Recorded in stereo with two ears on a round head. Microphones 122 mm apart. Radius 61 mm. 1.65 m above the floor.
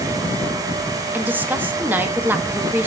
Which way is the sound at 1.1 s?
15° right (ahead or behind).